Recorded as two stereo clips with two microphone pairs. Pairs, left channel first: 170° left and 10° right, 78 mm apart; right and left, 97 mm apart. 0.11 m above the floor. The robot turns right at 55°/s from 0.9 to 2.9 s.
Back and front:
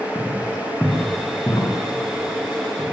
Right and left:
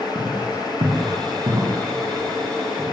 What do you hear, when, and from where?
0.1 s footsteps: 80° left, 7.5 m; by 2.8 s 150° right, 9.5 m